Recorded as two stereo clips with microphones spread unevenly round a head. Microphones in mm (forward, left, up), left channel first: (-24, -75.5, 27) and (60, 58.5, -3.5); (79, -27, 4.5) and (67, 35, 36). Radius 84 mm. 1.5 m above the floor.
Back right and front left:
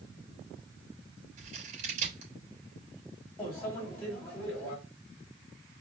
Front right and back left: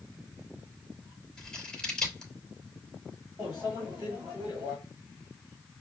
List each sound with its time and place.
1.4 s scissors: 15° left, 2.5 m
3.4 s a microwave: 160° left, 1.6 m